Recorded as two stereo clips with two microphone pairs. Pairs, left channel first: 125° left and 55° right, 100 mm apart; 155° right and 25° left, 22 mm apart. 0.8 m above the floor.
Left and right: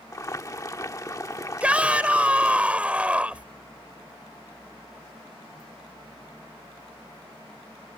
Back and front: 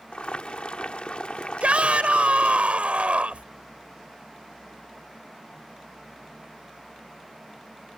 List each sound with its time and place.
0.1 s boiling: straight behind
1.6 s a shout: 20° left